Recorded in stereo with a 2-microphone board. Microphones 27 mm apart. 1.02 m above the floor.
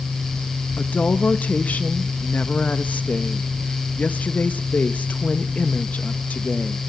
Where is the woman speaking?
70° left (ahead or behind), 0.9 m.